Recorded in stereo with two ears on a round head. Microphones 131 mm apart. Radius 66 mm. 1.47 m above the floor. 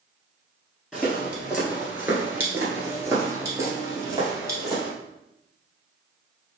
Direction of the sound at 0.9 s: 5° right (ahead or behind).